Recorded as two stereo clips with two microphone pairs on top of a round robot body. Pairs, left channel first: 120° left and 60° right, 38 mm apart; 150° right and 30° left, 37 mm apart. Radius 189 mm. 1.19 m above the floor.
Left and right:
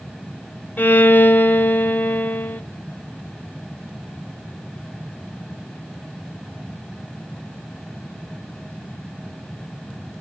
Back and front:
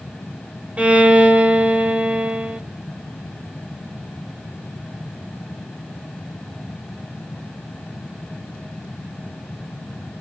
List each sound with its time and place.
0.8 s a violin: 85° left, 1.1 m